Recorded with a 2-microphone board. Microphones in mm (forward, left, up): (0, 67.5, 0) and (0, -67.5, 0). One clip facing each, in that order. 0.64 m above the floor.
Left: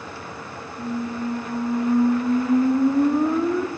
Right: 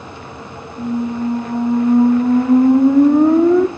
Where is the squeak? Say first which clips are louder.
Right 8 dB; 60° right (ahead or behind), 0.5 m.